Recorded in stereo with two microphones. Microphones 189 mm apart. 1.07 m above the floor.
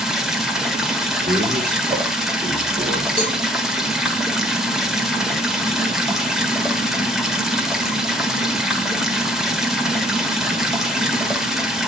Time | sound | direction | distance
0.0 | running water | centre (ahead or behind) | 1.4 m
1.3 | a man speaking | 50° right (ahead or behind) | 2 m
3.2 | a cowbell | 30° left (ahead or behind) | 4.5 m